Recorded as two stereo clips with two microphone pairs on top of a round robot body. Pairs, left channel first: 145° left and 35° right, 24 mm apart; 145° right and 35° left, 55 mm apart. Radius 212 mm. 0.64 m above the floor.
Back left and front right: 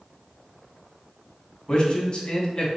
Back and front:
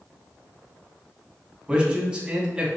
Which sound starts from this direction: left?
A man speaking, at 1.7 s.